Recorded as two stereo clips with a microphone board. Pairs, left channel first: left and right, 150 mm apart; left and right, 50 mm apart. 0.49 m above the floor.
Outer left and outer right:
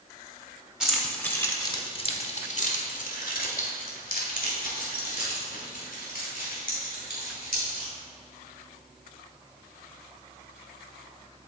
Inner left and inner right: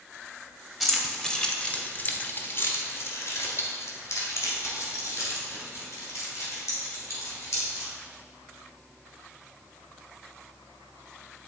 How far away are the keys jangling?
About 1.1 m.